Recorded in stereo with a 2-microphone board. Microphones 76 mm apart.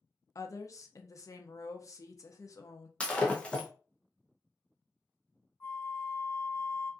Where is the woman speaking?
45° left (ahead or behind), 0.5 m.